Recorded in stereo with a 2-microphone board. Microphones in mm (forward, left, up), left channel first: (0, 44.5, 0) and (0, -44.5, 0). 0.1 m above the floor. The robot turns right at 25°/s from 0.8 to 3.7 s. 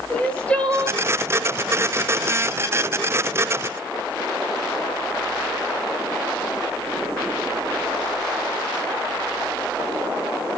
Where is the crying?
15° left (ahead or behind), 1.3 m; by 1.0 s 10° left (ahead or behind), 1.3 m.